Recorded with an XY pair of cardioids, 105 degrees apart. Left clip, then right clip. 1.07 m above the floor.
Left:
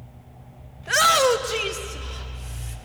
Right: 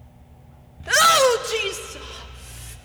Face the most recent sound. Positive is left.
turn(degrees=-15)